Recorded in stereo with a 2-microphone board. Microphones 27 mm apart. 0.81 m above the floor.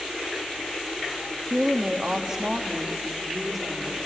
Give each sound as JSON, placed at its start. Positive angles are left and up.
{"t": 1.5, "sound": "a woman speaking", "side_deg": -35, "distance_m": 1.5}